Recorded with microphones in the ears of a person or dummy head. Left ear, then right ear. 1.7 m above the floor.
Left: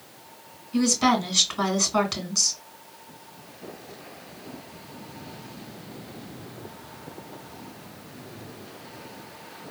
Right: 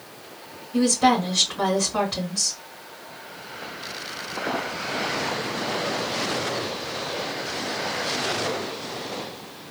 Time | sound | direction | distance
0.7 | a woman speaking | 80° left | 2.5 m